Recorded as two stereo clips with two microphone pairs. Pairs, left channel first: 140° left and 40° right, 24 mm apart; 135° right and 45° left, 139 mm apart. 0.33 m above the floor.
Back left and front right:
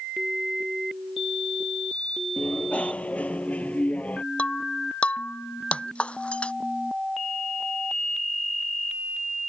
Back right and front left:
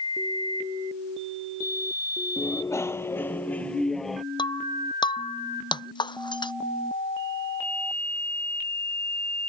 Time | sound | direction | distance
2.4 | a bicycle bell | 160° left | ?
4.4 | breaking glass | 170° left | ?